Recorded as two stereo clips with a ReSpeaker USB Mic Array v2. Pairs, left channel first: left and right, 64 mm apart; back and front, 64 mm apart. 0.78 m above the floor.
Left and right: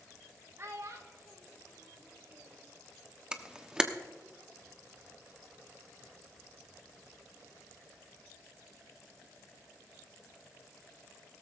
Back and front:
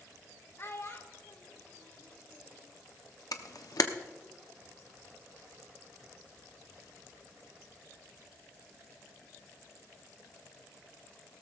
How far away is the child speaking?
About 1.7 m.